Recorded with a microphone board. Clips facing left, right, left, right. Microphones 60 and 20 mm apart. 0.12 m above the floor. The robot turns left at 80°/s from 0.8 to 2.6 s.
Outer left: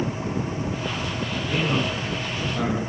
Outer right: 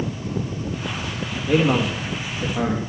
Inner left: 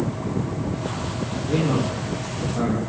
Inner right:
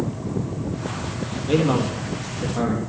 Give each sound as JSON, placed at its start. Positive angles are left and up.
{"t": 1.5, "sound": "a man speaking", "azimuth_deg": -70, "distance_m": 3.5}